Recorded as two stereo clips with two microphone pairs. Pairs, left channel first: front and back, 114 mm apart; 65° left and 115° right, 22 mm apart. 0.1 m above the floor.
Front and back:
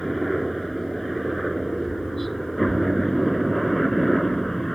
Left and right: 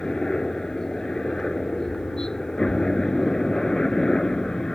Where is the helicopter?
90° left.